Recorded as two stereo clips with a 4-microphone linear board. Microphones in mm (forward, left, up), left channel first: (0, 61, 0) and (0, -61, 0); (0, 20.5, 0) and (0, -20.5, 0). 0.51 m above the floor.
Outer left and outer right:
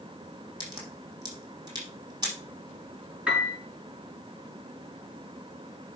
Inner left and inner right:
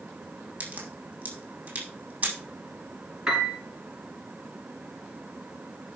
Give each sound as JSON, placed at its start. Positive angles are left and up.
{"t": 0.6, "sound": "a crack", "side_deg": -35, "distance_m": 7.5}
{"t": 3.3, "sound": "a piano", "side_deg": -10, "distance_m": 5.0}